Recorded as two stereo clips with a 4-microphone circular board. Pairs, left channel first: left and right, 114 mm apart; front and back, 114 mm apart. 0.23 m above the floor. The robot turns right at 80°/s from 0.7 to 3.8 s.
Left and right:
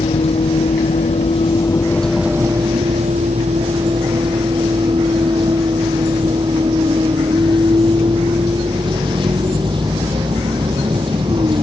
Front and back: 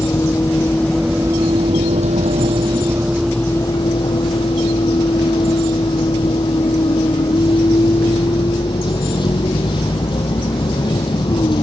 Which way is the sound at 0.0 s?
65° left.